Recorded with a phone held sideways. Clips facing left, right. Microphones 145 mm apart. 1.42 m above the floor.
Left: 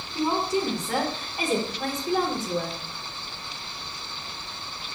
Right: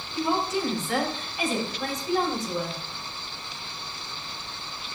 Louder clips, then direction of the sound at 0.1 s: Left 1 dB; 35° left (ahead or behind).